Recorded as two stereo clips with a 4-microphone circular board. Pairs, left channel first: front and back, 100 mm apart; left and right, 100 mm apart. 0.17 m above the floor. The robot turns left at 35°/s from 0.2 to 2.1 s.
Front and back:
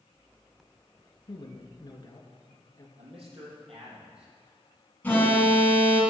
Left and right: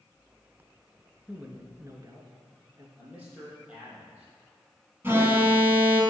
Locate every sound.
1.3 s a man speaking: 15° right, 2.0 m; by 2.9 s 45° right, 2.0 m
3.0 s a man speaking: 165° right, 5 m
5.0 s an alarm: 50° right, 2.5 m